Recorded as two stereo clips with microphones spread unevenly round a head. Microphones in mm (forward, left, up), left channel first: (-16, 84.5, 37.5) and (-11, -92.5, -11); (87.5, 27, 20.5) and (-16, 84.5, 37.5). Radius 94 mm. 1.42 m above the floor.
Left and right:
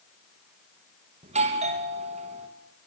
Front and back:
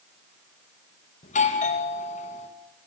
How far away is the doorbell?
About 3 m.